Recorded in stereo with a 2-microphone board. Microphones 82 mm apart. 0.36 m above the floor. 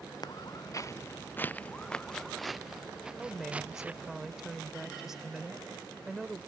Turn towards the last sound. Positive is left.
turn(degrees=-5)  # may be behind; listen again after turning